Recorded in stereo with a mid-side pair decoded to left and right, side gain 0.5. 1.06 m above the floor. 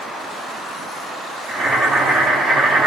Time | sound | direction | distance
1.5 | boiling | 35° right | 1.5 m